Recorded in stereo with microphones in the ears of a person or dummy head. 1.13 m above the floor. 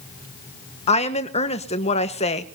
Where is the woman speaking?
30° left (ahead or behind), 1.1 m.